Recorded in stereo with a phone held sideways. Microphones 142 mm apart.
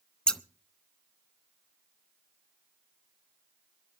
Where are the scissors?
5° left (ahead or behind), 0.6 m.